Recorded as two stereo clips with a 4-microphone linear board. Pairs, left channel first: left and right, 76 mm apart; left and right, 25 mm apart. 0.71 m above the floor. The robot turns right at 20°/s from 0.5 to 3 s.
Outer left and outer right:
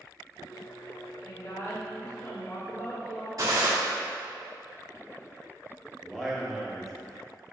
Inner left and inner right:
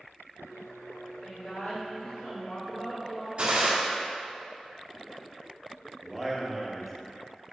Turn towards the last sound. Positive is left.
turn(degrees=0)  # may be behind; listen again after turning